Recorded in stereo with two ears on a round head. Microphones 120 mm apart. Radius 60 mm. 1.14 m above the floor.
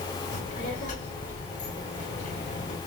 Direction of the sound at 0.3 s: 55° left (ahead or behind).